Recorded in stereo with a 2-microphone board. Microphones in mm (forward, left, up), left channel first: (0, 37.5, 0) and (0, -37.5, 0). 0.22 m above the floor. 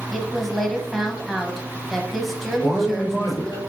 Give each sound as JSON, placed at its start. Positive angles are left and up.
{"t": 0.1, "sound": "a woman speaking", "side_deg": 0, "distance_m": 1.4}
{"t": 2.6, "sound": "a man speaking", "side_deg": 70, "distance_m": 4.0}